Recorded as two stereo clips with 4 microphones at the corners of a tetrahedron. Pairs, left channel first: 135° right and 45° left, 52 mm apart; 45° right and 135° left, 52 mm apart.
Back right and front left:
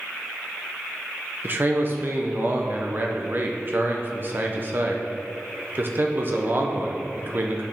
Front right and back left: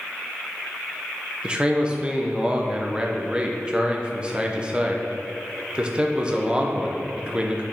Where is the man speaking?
75° left, 0.8 m.